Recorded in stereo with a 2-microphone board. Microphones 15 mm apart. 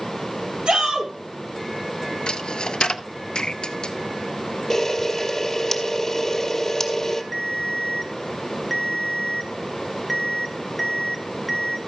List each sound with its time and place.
0.7 s a shout: 70° right (ahead or behind), 3.5 m
2.3 s a dropped coin: 75° left (ahead or behind), 0.6 m
4.7 s a camera shutter: 25° left (ahead or behind), 1.6 m
7.3 s a ringtone: centre (ahead or behind), 1.3 m